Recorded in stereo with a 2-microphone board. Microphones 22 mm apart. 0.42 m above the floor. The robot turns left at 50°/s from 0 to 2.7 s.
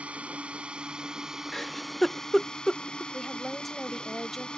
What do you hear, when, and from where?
0.0 s a drone: 90° right; by 4.6 s 135° left
1.5 s a giggle: 25° left (ahead or behind); by 3.0 s 5° left (ahead or behind)
3.1 s a woman speaking: 5° left (ahead or behind)